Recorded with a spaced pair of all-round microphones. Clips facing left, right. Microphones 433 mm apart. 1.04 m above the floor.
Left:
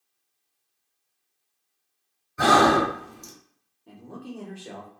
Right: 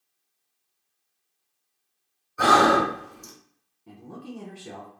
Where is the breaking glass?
No breaking glass in this recording.